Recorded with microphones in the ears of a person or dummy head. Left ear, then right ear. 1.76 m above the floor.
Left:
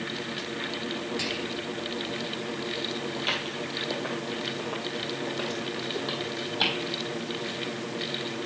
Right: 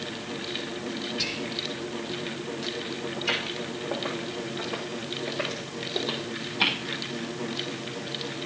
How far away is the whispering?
About 0.8 m.